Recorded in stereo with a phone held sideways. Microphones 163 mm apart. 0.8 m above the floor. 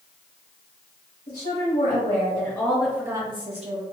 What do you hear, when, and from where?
1.3 s a woman speaking: 60° left (ahead or behind), 1.3 m; by 3.8 s 50° right (ahead or behind), 1.0 m